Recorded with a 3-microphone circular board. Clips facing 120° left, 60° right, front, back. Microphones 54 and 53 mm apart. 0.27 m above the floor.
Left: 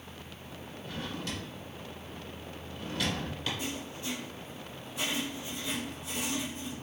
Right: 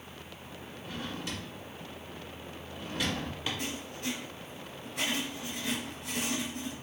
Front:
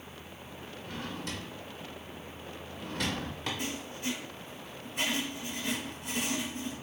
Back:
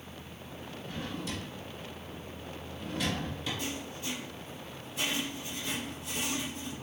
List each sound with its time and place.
0.8 s a drawer: 10° left, 1.4 m
3.6 s writing: 35° right, 1.4 m